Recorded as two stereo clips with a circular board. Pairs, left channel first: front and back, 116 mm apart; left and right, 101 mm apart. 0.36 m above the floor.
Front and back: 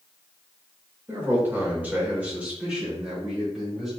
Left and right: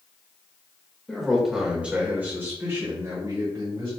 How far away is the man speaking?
About 1.4 m.